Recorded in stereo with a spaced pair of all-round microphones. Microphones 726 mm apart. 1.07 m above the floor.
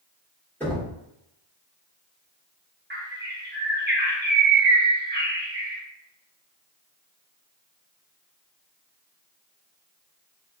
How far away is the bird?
About 0.7 m.